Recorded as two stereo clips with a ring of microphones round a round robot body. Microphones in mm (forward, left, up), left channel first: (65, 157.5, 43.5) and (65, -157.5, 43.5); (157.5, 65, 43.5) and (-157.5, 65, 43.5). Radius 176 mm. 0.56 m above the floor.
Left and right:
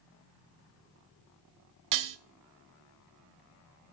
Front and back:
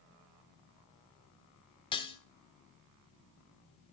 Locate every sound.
1.9 s dishes clattering: 75° right, 0.9 m